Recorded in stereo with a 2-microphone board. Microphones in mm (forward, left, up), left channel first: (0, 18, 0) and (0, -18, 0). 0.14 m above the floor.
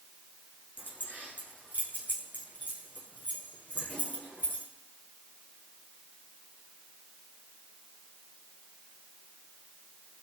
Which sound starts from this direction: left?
Keys jangling, at 0.8 s.